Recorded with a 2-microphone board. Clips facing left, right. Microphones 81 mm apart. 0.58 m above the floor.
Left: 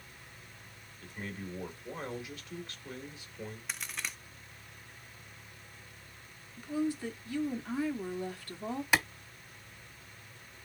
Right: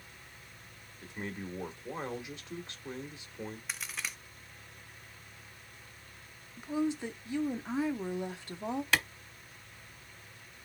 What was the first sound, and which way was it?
A man speaking, 25° right (ahead or behind).